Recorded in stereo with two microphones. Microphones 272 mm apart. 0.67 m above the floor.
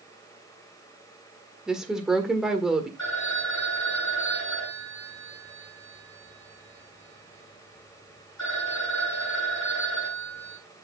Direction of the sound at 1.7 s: Centre (ahead or behind).